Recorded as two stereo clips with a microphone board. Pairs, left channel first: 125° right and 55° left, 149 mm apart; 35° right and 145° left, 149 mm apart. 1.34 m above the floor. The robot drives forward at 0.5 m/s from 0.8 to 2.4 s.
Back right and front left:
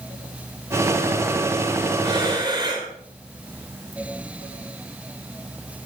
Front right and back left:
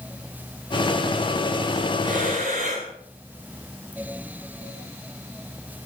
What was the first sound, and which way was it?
Breathing, 115° left.